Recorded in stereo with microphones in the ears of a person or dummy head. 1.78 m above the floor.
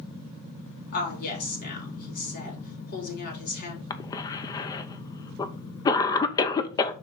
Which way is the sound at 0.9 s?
60° left (ahead or behind).